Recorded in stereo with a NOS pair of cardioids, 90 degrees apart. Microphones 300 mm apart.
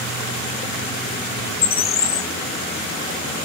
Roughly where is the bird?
Ahead left.